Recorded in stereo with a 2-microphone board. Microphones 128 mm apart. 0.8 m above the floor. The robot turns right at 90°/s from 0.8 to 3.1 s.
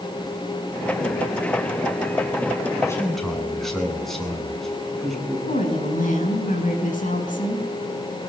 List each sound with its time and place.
2.8 s a man speaking: 25° left (ahead or behind), 8.5 m; by 5.4 s 5° left (ahead or behind), 8.5 m
5.5 s a woman speaking: 80° left, 7 m